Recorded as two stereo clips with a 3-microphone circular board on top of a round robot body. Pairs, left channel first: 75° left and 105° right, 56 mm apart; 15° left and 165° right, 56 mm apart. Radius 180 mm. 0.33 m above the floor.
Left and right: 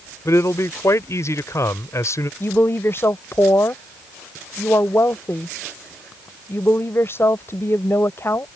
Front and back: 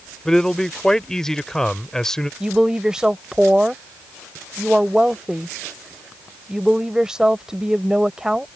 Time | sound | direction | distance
0.2 | a man speaking | 95° left | ?
2.4 | a woman speaking | 115° left | ?